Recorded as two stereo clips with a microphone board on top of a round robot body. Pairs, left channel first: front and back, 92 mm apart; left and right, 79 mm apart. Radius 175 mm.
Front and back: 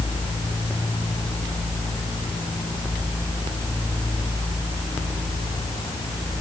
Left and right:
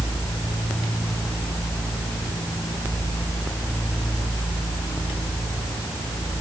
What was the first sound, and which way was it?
Only background noise.